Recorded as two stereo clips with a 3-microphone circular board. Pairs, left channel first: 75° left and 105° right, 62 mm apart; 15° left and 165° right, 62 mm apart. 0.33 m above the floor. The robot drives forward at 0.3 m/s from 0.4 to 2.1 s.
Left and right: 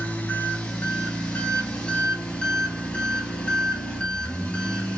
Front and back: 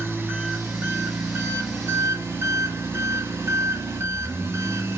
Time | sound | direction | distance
0.0 | an engine running | 140° left | 1.9 m